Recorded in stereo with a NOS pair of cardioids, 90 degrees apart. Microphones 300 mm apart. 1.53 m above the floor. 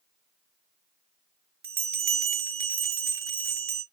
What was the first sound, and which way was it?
A bell, 45° right.